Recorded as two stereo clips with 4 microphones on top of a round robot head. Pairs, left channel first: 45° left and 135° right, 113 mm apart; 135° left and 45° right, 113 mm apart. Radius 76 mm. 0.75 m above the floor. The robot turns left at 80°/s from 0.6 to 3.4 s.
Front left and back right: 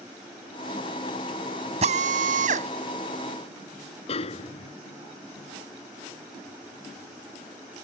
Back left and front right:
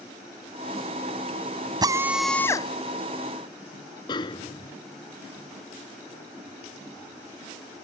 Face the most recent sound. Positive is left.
turn(degrees=80)